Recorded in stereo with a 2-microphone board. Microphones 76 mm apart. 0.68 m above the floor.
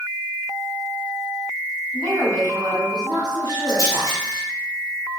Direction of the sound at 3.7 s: 55° left (ahead or behind).